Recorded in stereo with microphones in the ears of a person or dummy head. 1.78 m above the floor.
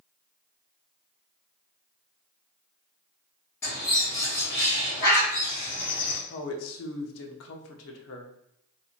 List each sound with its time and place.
3.6 s a bird: 20° left (ahead or behind), 1.4 m
6.3 s a woman speaking: 75° left (ahead or behind), 0.8 m